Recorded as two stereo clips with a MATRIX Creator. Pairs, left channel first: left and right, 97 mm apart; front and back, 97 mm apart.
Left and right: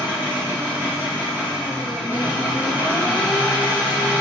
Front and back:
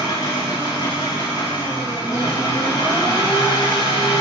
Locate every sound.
0.0 s an engine running: 20° right, 2.5 m